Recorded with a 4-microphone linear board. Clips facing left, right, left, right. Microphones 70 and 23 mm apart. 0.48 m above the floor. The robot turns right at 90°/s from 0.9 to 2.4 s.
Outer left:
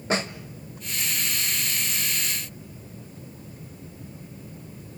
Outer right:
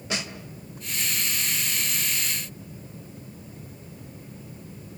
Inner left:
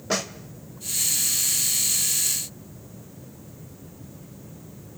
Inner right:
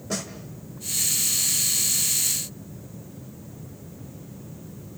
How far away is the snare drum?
About 1.3 m.